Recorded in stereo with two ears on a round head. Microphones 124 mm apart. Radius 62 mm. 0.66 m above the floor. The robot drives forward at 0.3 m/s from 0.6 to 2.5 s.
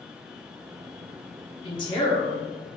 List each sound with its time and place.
1.6 s a woman speaking: 35° left (ahead or behind), 1.0 m; by 2.4 s 30° left (ahead or behind), 1.2 m